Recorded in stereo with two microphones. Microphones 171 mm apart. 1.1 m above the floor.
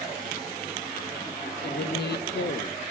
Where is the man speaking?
75° left (ahead or behind), 0.7 m.